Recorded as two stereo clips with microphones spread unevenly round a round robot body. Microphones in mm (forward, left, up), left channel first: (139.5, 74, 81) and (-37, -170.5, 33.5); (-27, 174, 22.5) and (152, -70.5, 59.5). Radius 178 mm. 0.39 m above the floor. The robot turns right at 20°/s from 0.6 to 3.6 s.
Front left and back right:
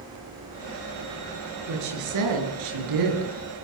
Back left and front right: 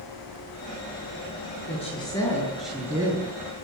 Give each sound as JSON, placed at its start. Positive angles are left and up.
{"t": 1.7, "sound": "a woman speaking", "azimuth_deg": -165, "distance_m": 7.0}